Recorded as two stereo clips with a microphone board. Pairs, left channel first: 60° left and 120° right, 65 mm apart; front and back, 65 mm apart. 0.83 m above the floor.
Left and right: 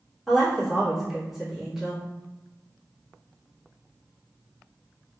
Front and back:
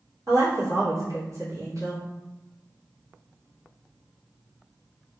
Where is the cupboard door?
I don't hear a cupboard door.